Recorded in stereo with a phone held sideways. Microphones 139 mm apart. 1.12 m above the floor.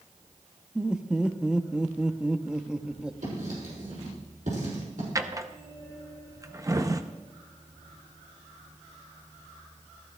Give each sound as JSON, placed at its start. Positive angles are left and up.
{"t": 0.8, "sound": "laughter", "side_deg": -5, "distance_m": 0.7}
{"t": 3.2, "sound": "writing", "side_deg": -80, "distance_m": 6.5}
{"t": 5.2, "sound": "a drawer", "side_deg": -25, "distance_m": 0.7}